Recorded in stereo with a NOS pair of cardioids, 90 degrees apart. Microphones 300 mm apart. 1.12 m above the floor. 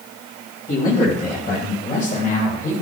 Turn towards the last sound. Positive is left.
turn(degrees=20)